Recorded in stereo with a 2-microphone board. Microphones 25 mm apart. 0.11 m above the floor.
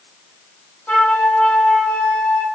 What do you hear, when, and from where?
0.9 s a flute: 50° left (ahead or behind), 5.5 m